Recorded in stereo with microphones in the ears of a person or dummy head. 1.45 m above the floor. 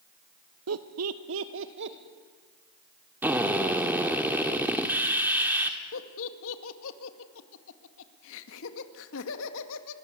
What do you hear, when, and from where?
0.7 s laughter: 70° right (ahead or behind), 1.1 m; by 2.0 s 60° right (ahead or behind), 2 m
3.2 s a drill: 5° right (ahead or behind), 1.7 m
5.9 s laughter: 75° left (ahead or behind), 2 m